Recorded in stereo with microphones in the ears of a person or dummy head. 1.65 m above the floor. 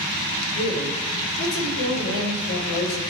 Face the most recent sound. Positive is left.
turn(degrees=85)